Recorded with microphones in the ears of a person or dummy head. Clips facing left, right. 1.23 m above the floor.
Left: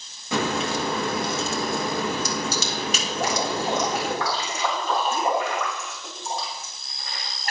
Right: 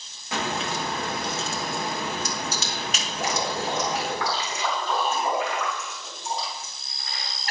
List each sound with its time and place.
0.3 s a crack: 75° left (ahead or behind), 2.0 m
3.1 s dripping: 45° left (ahead or behind), 4 m